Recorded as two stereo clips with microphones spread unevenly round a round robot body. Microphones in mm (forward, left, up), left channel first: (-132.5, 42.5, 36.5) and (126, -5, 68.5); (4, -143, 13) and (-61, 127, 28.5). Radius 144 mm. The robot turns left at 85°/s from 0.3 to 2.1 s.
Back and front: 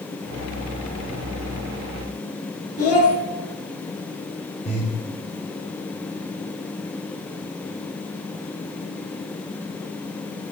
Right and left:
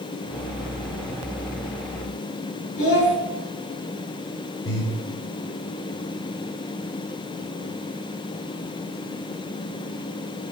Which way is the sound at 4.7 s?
125° right.